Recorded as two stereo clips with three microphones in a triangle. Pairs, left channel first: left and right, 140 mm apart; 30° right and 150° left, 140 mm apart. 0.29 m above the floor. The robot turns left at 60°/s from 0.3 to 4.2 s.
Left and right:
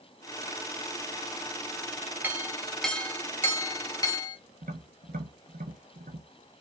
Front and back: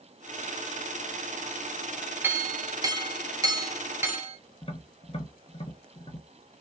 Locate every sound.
2.2 s a clink: 150° right, 0.9 m; by 4.4 s 95° left, 0.9 m
4.6 s tapping: 80° right, 1.4 m